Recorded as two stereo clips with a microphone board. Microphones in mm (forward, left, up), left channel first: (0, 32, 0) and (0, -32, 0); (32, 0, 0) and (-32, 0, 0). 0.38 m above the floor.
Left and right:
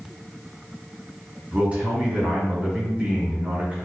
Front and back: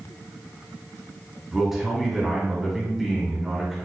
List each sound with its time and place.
1.5 s a man speaking: 100° right, 1.4 m